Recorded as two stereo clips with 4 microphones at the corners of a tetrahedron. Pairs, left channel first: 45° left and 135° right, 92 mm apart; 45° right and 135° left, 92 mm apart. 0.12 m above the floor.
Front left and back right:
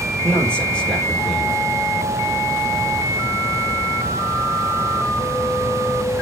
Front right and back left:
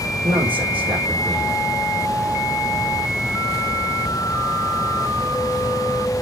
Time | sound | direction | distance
0.2 | a man speaking | 125° left | 4 m